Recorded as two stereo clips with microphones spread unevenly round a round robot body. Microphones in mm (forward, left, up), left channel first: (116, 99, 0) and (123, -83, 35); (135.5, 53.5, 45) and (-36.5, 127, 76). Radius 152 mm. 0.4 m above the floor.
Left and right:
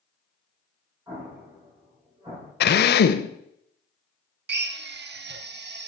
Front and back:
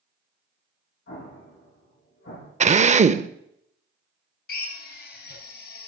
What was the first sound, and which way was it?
An explosion, 20° right.